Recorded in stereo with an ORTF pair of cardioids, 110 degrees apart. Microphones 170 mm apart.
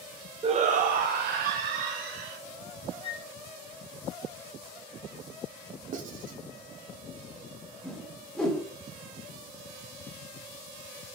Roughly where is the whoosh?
Ahead.